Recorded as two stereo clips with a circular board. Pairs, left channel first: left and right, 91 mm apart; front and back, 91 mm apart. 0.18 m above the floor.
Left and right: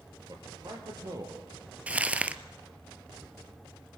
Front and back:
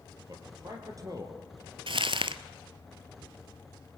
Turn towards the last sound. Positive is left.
turn(degrees=-165)